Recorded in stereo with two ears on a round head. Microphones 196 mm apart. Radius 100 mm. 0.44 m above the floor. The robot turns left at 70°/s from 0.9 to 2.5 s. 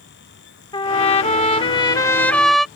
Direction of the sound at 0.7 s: 25° left (ahead or behind).